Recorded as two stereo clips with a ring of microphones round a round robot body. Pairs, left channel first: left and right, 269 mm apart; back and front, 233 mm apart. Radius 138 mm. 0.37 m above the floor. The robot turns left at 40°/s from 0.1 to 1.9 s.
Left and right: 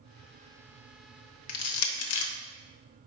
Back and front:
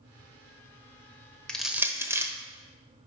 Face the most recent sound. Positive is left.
turn(degrees=75)